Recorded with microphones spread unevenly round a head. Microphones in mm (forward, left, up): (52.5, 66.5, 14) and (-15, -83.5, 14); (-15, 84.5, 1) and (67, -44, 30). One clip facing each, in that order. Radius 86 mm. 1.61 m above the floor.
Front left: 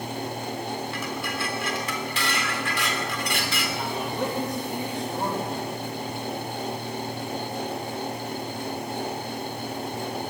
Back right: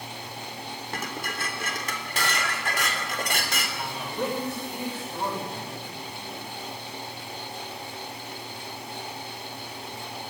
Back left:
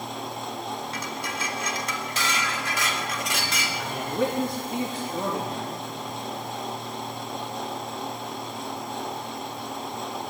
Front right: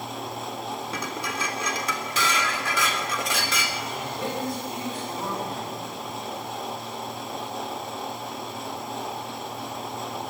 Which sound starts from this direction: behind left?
A man speaking, at 3.8 s.